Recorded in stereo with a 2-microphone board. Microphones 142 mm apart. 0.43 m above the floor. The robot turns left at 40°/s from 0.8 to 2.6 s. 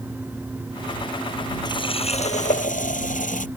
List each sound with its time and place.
1.6 s a running tap: 150° left; by 3.5 s 110° left